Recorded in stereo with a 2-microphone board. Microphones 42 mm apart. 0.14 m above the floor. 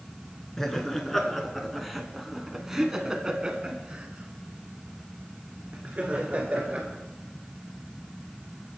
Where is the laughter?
10° left (ahead or behind), 2 m; by 6.9 s 35° right (ahead or behind), 3 m.